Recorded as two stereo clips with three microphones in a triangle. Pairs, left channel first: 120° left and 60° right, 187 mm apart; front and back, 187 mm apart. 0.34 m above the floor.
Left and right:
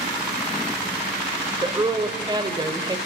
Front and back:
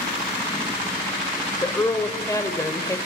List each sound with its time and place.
1.6 s a woman speaking: 45° right, 1.4 m